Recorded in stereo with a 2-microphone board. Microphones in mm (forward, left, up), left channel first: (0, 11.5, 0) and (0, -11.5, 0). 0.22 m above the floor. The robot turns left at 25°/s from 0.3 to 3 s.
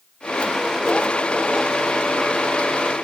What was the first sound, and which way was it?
Only background noise.